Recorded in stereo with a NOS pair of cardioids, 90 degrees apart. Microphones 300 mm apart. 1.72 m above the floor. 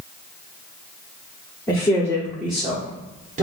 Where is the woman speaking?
15° left, 1.3 m; by 3.4 s 25° right, 1.1 m.